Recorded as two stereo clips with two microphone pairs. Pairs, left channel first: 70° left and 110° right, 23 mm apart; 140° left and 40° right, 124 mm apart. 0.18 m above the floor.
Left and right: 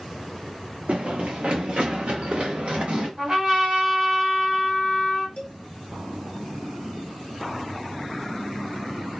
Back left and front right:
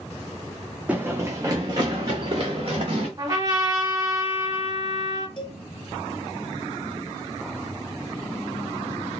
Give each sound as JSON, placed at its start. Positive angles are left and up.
{"t": 0.9, "sound": "running footsteps", "azimuth_deg": -115, "distance_m": 0.6}
{"t": 3.2, "sound": "a trumpet", "azimuth_deg": -75, "distance_m": 2.0}
{"t": 5.4, "sound": "a cowbell", "azimuth_deg": 100, "distance_m": 0.9}